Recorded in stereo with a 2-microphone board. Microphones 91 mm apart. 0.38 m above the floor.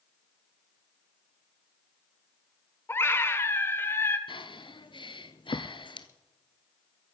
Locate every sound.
2.9 s a scream: 25° left (ahead or behind), 1.4 m
4.3 s breathing: 65° left (ahead or behind), 1.0 m